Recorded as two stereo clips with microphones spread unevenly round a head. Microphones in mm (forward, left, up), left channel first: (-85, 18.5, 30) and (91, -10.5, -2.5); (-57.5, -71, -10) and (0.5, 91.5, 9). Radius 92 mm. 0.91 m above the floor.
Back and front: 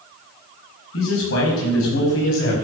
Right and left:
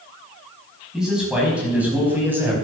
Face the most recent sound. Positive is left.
turn(degrees=145)